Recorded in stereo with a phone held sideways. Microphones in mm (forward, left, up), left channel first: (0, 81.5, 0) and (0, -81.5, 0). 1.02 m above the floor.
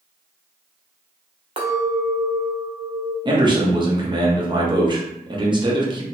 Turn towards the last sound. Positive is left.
turn(degrees=-30)  # may be behind; listen again after turning